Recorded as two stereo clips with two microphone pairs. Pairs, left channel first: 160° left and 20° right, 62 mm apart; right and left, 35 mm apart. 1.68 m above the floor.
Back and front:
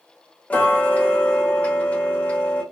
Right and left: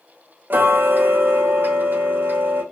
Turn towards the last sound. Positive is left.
turn(degrees=95)